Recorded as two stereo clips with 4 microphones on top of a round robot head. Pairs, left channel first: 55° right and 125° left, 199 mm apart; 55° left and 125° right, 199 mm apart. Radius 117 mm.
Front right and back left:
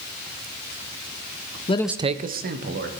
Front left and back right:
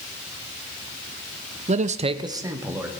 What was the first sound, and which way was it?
A man speaking, 90° right.